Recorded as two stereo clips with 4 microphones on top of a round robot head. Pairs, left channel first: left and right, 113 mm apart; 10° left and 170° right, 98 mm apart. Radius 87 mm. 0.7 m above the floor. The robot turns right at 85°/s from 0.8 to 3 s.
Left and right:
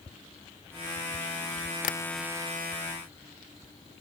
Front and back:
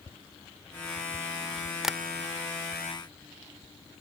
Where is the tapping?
105° left; by 2.0 s 115° left.